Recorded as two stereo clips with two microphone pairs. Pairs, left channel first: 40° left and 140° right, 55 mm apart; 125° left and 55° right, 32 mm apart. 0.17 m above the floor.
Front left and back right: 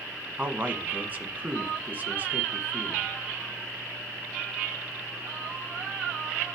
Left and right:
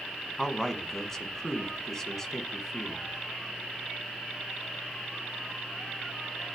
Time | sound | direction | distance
0.4 | a man speaking | 175° right | 1.2 m